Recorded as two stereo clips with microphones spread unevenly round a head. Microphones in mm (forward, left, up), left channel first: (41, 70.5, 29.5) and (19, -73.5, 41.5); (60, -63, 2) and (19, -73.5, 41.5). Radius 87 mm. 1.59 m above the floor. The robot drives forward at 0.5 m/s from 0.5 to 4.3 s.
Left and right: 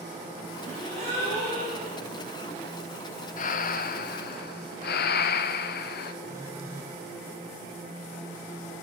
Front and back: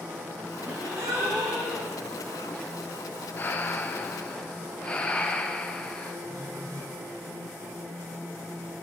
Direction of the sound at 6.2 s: 175° right.